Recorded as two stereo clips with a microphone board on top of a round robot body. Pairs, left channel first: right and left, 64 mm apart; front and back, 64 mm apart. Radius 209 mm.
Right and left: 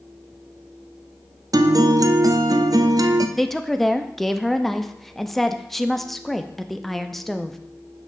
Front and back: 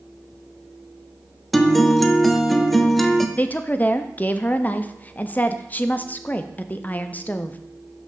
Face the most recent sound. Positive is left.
turn(degrees=-5)